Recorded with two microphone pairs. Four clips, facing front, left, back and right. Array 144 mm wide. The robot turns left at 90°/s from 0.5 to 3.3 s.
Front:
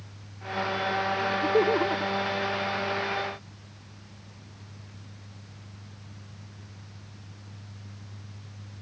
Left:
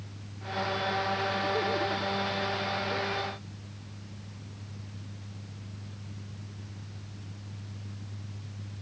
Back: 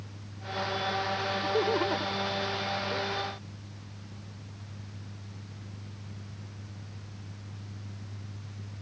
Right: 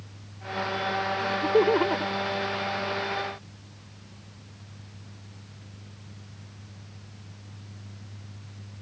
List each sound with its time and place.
1.2 s laughter: 45° right; by 3.1 s 145° left